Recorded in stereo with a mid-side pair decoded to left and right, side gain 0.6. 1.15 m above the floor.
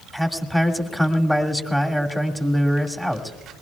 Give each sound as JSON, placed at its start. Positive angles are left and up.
{"t": 0.1, "sound": "a man speaking", "azimuth_deg": 5, "distance_m": 2.0}